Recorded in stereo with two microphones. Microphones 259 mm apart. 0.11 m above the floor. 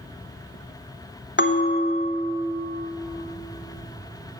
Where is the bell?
45° left (ahead or behind), 1.0 m.